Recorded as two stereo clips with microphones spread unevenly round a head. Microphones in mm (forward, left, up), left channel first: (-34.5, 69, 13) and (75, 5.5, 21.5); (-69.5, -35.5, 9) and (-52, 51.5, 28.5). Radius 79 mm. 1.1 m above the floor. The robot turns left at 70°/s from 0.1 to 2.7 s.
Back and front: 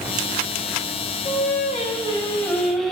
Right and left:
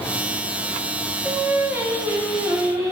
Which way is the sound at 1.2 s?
160° left.